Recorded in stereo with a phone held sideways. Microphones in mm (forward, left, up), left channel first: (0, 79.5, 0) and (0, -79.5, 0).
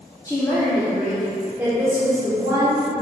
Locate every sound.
0.2 s a woman speaking: 20° left (ahead or behind), 1.1 m; by 3.0 s 25° right (ahead or behind), 3 m